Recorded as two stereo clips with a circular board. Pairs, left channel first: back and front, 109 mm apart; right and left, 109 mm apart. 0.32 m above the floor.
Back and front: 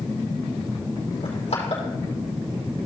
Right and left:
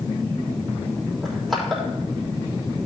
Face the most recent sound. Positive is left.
turn(degrees=180)